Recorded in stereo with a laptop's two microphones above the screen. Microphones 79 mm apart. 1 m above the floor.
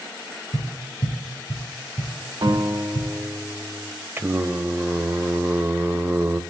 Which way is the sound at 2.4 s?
85° right.